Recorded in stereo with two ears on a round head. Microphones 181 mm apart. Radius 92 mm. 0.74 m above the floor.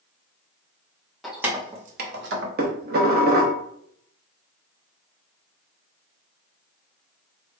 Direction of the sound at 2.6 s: 50° right (ahead or behind).